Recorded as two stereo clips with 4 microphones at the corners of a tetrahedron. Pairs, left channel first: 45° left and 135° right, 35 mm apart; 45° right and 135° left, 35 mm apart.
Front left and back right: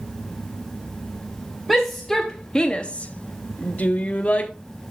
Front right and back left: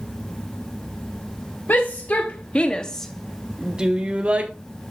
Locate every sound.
1.7 s a shout: 45° right, 0.9 m; by 4.5 s 90° left, 1.1 m